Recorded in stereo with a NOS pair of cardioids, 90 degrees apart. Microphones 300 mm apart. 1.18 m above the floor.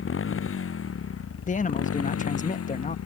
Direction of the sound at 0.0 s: 45° left.